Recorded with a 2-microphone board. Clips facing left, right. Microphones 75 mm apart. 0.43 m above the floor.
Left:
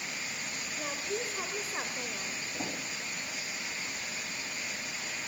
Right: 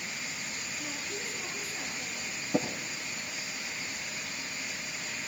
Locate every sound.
0.8 s a woman speaking: 55° left (ahead or behind), 1.8 m
2.5 s tapping: 75° right (ahead or behind), 5 m